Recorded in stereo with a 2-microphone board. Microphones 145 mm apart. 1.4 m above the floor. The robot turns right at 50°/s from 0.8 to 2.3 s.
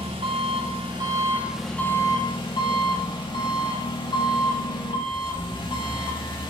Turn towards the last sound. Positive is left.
turn(degrees=35)